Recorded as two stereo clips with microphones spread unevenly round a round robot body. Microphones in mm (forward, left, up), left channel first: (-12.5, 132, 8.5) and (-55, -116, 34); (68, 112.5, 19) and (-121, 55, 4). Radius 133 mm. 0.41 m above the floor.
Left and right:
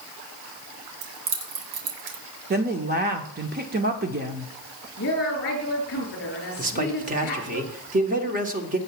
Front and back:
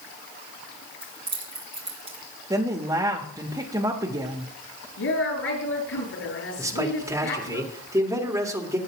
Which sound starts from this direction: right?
Keys jangling, at 1.0 s.